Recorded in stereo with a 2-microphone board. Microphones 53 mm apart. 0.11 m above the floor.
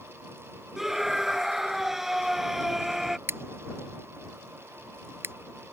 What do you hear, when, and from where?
0.8 s a scream: 5° right (ahead or behind)
3.3 s scissors: 50° right (ahead or behind)